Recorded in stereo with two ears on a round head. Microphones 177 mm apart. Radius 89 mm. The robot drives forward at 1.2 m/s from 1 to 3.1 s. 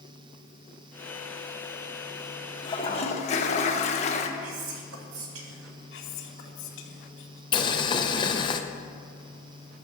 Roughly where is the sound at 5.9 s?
Left.